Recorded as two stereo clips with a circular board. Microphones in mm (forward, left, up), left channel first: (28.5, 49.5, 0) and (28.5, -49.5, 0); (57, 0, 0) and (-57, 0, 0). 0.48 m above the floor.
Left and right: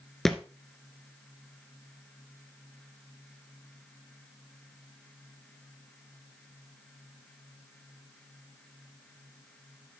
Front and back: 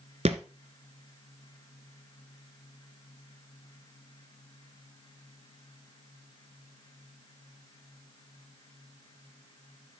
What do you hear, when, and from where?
0.2 s a thud: 175° left, 0.9 m